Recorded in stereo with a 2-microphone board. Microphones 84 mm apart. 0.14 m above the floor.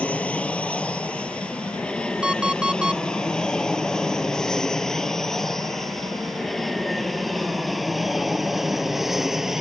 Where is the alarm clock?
10° right (ahead or behind).